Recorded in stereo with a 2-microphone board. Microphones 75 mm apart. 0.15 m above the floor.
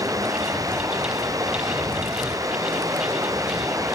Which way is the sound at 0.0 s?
50° right (ahead or behind).